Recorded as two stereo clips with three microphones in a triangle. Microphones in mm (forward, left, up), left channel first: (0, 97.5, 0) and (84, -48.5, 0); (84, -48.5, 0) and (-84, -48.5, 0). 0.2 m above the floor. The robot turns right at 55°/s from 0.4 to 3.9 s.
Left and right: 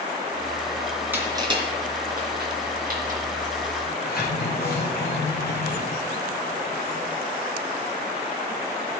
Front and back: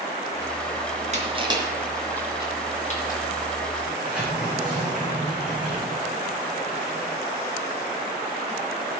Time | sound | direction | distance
1.1 | crushing | 140° right | 3.5 m
3.9 | a sliding door | 95° left | 5.5 m